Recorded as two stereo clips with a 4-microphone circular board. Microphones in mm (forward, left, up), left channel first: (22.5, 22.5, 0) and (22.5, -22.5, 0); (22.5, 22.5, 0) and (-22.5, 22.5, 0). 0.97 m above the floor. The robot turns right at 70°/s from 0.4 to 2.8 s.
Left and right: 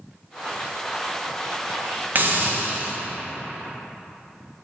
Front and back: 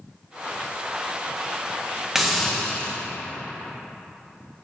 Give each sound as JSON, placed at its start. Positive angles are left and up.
{"t": 2.1, "sound": "a hiss", "azimuth_deg": -105, "distance_m": 0.8}